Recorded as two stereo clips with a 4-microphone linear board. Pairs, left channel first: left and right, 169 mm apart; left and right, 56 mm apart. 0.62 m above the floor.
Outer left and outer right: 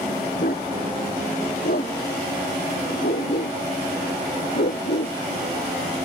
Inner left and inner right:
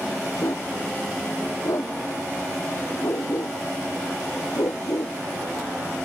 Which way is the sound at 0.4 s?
65° left (ahead or behind).